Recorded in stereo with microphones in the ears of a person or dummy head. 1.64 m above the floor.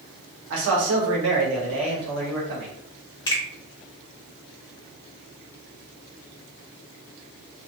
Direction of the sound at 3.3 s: 20° left (ahead or behind).